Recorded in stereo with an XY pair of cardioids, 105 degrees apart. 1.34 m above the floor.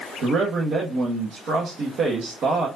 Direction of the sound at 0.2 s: 70° right.